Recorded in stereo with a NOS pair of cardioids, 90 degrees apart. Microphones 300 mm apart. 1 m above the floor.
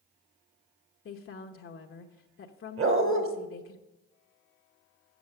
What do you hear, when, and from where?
1.1 s a woman speaking: 45° left, 1.0 m
2.8 s a dog barking: 45° right, 1.8 m